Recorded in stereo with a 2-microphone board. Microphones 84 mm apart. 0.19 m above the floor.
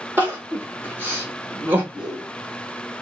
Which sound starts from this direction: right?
Crying, at 0.2 s.